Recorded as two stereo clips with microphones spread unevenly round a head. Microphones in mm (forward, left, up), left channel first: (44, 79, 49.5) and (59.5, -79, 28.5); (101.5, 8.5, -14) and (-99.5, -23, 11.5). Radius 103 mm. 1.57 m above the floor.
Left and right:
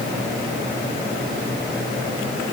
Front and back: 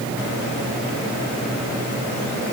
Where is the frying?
I don't hear frying.